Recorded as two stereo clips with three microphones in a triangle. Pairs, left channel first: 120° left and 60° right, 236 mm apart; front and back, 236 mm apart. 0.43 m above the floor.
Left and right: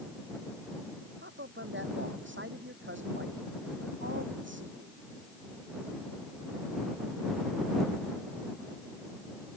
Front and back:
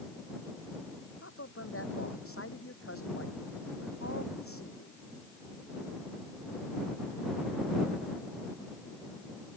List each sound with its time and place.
1.2 s a man speaking: 25° right